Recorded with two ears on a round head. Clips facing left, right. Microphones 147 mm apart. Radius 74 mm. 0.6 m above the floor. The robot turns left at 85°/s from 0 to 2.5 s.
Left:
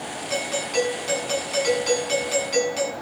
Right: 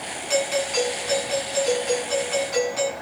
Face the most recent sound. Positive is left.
turn(degrees=30)